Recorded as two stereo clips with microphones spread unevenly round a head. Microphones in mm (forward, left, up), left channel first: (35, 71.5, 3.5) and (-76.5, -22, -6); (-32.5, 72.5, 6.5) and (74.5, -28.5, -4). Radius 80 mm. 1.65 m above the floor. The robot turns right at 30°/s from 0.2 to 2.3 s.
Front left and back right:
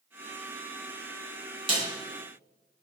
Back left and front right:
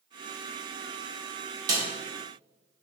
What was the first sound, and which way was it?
A snare drum, 100° right.